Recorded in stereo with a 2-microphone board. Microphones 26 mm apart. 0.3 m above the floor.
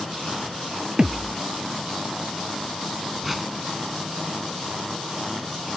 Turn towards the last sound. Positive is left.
turn(degrees=-5)  # may be behind; listen again after turning